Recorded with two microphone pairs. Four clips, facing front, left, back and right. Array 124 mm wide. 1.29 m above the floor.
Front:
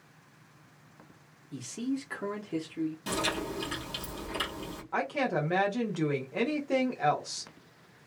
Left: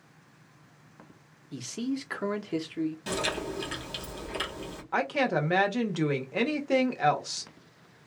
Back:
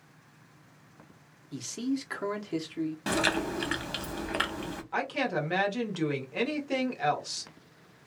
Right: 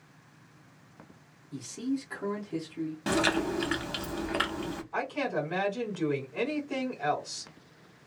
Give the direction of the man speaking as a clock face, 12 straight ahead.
8 o'clock.